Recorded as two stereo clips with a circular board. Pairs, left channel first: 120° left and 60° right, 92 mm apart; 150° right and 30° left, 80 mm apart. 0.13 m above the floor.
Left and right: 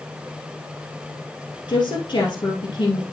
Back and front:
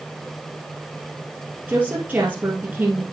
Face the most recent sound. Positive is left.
turn(degrees=95)